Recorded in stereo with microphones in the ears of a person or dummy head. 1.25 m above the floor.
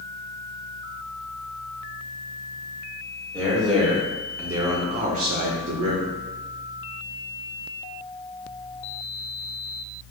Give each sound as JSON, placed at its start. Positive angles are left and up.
{"t": 3.3, "sound": "a man speaking", "side_deg": 5, "distance_m": 1.4}